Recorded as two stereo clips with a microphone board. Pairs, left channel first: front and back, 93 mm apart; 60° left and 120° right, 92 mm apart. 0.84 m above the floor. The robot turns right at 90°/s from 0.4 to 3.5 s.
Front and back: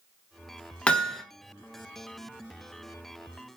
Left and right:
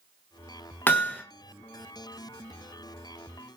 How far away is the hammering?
About 0.5 m.